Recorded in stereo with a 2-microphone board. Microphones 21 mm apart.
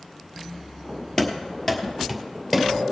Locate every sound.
1.2 s running footsteps: 25° left (ahead or behind), 1.7 m; by 2.7 s 5° left (ahead or behind), 1.7 m